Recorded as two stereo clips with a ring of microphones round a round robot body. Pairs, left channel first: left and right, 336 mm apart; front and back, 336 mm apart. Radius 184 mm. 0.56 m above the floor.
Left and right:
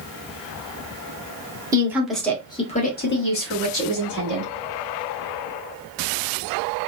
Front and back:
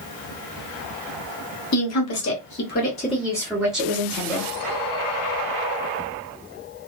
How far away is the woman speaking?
About 1.2 m.